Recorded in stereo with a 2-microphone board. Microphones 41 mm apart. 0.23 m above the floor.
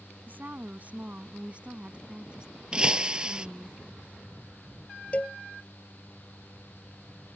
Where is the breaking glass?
25° right (ahead or behind).